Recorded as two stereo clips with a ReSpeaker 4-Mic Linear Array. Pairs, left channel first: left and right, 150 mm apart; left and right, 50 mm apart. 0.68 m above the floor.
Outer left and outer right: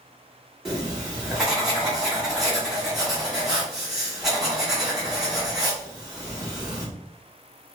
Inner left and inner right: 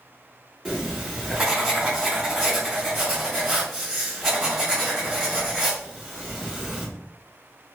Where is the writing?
Centre (ahead or behind), 1.9 m.